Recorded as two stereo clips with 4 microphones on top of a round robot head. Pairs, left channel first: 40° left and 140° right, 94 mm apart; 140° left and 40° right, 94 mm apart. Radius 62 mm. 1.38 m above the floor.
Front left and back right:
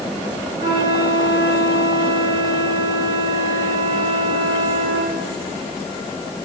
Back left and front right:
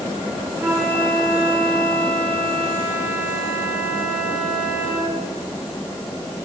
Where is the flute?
110° right, 4 m.